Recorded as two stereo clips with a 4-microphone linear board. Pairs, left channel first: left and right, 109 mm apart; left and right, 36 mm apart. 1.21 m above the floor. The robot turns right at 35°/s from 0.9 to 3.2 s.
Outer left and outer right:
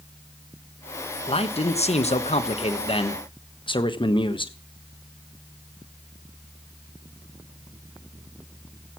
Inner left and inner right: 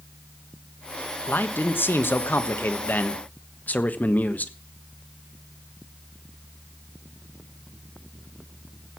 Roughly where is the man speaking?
Ahead left.